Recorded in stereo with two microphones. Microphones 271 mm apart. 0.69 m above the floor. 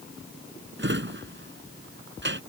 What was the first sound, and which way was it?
A drawer, 45° right (ahead or behind).